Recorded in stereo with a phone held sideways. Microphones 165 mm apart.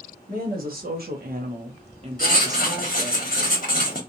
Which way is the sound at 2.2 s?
60° left (ahead or behind).